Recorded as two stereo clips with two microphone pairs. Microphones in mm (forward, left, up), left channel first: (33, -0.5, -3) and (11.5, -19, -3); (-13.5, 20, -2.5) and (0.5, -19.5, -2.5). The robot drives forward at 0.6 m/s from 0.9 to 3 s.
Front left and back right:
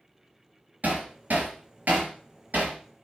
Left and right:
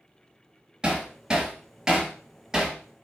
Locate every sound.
0.8 s hammering: 140° right, 3.5 m; by 2.8 s 150° right, 4.5 m